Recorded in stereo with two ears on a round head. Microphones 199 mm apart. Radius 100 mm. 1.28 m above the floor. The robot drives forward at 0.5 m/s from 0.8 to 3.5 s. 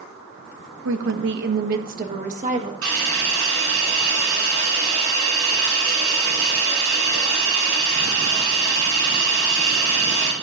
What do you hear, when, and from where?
0.8 s a woman speaking: 65° right (ahead or behind), 1.0 m; by 2.7 s 30° right (ahead or behind), 1.6 m
2.8 s a hiss: 70° right (ahead or behind), 5 m